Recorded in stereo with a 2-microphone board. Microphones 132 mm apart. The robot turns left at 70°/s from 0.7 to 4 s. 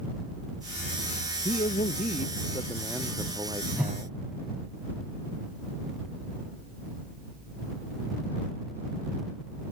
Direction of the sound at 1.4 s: 110° left.